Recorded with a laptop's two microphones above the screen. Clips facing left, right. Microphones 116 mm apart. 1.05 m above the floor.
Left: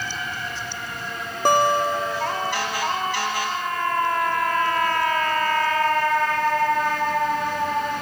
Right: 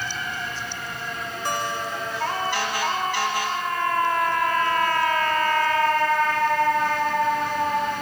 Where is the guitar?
65° left (ahead or behind).